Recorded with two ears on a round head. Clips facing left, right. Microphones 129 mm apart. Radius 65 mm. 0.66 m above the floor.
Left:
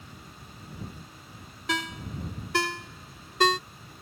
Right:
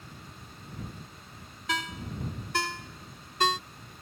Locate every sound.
1.7 s a ringtone: 65° left (ahead or behind)